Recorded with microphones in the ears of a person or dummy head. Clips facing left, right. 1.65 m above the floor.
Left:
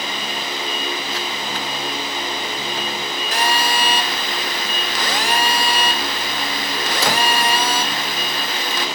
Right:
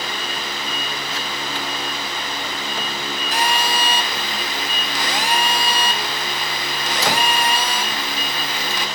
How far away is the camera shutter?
No camera shutter in this recording.